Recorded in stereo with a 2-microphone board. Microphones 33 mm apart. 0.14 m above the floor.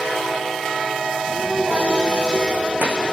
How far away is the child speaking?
About 5 m.